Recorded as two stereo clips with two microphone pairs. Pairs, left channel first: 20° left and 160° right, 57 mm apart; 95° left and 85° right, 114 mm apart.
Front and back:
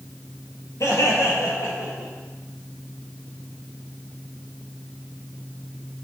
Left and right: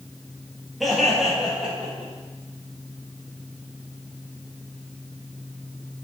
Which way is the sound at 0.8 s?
5° left.